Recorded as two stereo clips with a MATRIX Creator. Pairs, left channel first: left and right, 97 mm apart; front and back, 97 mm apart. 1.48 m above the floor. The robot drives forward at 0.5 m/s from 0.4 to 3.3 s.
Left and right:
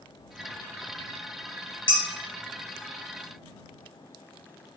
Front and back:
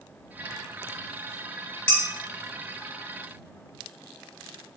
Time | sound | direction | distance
1.9 | dishes clattering | 75° left | 0.8 m